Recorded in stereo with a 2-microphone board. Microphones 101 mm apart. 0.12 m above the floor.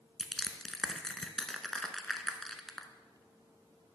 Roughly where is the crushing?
Centre.